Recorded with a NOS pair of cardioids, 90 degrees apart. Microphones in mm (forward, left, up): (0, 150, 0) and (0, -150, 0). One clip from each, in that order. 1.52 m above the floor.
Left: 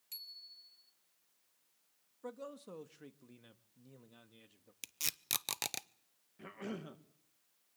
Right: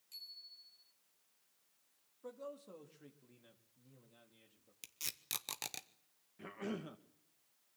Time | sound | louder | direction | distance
0.1 | a bicycle bell | left 2 dB | 60° left | 3.5 m
2.2 | a man speaking | left 2 dB | 40° left | 2 m
4.8 | tape being pulled | left 5 dB | 25° left | 0.8 m
6.4 | a cough | right 1 dB | straight ahead | 2 m